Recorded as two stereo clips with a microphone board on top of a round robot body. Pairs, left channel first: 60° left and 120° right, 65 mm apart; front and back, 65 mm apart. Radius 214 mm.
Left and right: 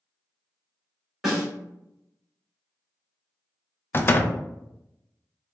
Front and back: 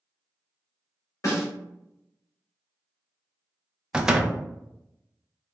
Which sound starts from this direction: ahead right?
A snare drum, at 1.2 s.